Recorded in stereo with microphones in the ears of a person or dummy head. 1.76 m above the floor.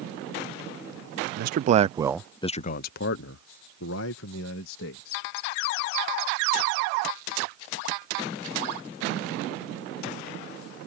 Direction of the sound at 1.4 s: 55° right (ahead or behind).